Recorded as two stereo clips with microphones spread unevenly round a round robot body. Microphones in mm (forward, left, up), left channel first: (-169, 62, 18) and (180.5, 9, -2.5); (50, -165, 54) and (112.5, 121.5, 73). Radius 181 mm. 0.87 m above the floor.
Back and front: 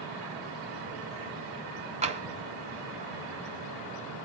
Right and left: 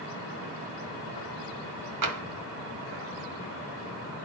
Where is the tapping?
65° left, 1.6 m.